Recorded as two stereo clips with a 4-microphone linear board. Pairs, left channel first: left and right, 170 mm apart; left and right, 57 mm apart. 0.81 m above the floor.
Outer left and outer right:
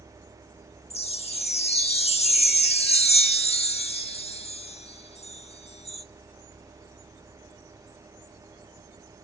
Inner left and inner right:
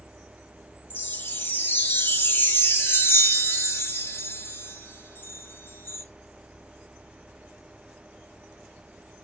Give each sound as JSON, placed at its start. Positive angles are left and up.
{"t": 0.9, "sound": "a chime", "side_deg": 35, "distance_m": 1.1}